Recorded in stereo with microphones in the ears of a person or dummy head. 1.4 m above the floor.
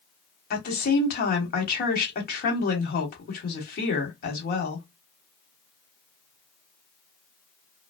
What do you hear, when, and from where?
0.5 s a woman speaking: 50° left (ahead or behind), 1.1 m